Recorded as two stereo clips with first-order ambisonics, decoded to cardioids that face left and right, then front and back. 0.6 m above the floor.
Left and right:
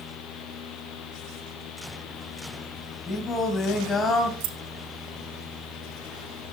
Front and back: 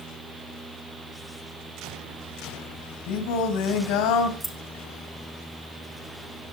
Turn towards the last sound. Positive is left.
turn(degrees=-90)